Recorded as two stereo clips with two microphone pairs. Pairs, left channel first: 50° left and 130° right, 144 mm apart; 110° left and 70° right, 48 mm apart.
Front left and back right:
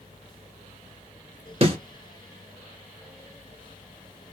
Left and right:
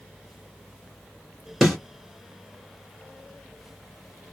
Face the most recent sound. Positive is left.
turn(degrees=-165)